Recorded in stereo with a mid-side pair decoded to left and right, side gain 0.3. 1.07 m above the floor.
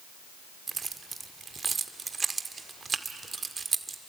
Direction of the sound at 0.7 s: 50° right.